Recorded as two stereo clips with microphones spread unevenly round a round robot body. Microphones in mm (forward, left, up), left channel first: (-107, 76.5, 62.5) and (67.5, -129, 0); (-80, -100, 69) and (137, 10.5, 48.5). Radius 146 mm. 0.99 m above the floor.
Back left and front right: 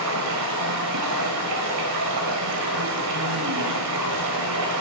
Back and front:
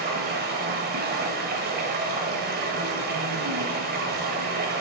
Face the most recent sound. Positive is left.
turn(degrees=-20)